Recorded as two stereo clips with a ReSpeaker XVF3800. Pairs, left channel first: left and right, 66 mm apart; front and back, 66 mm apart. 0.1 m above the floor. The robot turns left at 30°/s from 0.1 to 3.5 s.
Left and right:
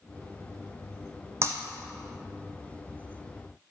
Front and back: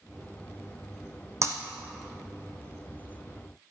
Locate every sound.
1.4 s breaking glass: 135° right, 1.9 m; by 1.6 s 140° right, 1.9 m